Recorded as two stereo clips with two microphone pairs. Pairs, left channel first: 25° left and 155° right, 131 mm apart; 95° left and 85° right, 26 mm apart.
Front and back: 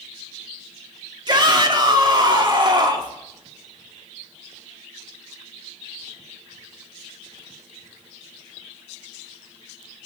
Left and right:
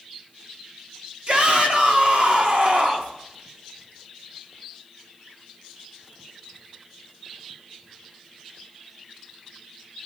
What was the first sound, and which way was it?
A shout, 115° right.